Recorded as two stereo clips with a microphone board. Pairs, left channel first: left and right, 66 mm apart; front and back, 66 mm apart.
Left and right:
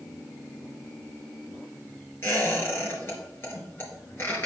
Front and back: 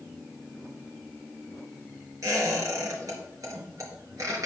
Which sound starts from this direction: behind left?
A squeak, at 2.2 s.